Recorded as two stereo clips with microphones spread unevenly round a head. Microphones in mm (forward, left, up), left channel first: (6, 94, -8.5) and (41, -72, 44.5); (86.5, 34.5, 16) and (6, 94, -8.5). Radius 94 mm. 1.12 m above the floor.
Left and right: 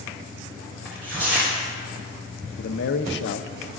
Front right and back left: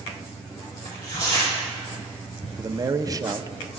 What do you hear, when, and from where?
0.8 s tearing paper: 165° right, 3.5 m
2.6 s a man speaking: 90° left, 0.9 m